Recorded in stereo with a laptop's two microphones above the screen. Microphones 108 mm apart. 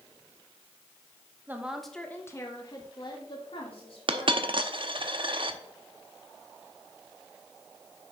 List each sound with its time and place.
1.5 s a woman speaking: 20° right (ahead or behind), 1.1 m; by 4.6 s 65° left (ahead or behind), 3 m
4.1 s a dropped coin: 50° right (ahead or behind), 0.8 m